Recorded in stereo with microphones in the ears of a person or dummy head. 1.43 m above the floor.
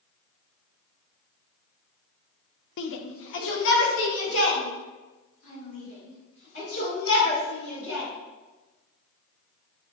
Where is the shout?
70° left (ahead or behind), 0.5 m; by 8.1 s 90° left, 5 m.